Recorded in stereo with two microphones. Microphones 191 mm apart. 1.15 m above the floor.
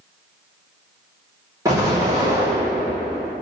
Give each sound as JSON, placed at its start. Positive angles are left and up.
{"t": 1.6, "sound": "an explosion", "side_deg": -20, "distance_m": 1.9}